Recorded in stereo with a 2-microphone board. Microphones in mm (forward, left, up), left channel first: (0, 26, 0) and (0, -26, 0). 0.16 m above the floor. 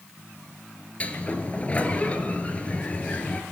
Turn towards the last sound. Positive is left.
turn(degrees=25)  # may be behind; listen again after turning